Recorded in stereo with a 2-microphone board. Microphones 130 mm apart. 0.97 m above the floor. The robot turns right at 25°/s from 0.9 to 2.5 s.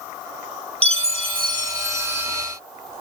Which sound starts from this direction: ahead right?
A chime, at 0.8 s.